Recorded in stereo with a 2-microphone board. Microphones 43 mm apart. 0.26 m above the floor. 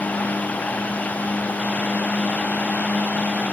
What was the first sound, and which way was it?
Only background noise.